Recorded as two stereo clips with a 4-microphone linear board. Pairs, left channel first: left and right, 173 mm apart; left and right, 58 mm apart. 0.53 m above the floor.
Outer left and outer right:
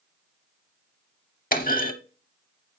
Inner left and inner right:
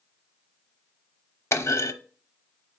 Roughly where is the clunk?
Left.